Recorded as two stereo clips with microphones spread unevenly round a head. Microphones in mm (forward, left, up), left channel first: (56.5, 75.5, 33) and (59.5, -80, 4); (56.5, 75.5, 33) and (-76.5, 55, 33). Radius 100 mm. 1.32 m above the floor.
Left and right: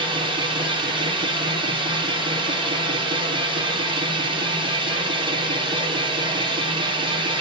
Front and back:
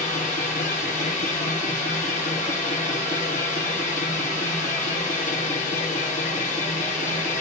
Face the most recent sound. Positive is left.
turn(degrees=-35)